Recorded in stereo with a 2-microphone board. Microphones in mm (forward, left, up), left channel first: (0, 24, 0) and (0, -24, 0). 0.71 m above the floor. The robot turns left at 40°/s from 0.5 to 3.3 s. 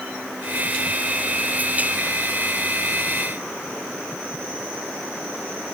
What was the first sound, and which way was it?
Only background noise.